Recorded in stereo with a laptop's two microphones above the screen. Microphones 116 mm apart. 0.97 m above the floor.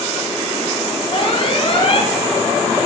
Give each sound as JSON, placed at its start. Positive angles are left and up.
{"t": 1.1, "sound": "an alarm", "side_deg": 50, "distance_m": 4.0}